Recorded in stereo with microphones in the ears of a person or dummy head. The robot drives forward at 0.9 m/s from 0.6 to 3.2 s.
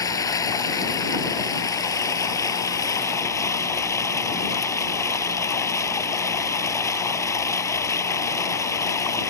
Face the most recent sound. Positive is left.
turn(degrees=10)  # may be behind; listen again after turning